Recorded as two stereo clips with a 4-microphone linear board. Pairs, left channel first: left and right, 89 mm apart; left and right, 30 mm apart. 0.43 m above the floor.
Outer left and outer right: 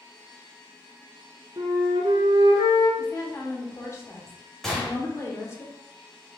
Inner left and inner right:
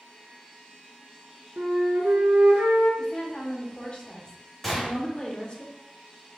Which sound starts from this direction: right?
A flute, at 1.6 s.